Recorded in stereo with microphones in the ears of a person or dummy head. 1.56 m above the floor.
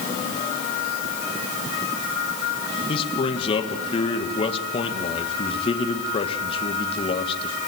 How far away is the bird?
No bird in this recording.